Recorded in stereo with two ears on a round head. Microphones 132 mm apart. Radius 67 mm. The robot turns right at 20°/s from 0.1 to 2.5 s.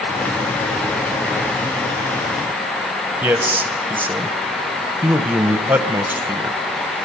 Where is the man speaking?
15° right (ahead or behind), 0.8 m.